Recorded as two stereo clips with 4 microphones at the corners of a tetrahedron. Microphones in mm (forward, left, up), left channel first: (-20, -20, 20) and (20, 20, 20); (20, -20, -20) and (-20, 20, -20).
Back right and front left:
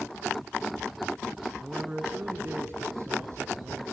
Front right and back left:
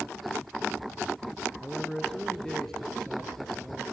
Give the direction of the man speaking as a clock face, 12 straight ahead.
12 o'clock.